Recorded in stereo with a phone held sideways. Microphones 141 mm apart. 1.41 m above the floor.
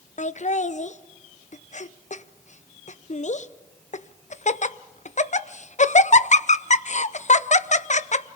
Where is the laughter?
55° left (ahead or behind), 0.6 m.